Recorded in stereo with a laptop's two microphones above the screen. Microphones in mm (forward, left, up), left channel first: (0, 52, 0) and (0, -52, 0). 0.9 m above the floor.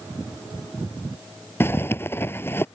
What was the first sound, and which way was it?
A zipper, 20° left (ahead or behind).